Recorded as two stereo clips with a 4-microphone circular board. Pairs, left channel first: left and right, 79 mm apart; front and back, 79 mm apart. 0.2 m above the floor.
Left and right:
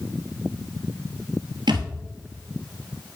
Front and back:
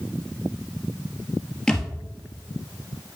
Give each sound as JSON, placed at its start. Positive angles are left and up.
{"t": 1.7, "sound": "a thud", "azimuth_deg": -80, "distance_m": 1.4}